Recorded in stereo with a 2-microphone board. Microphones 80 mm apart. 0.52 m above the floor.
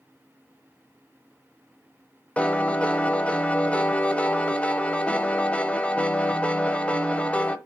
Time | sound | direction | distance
2.4 | a piano | 15° left (ahead or behind) | 0.8 m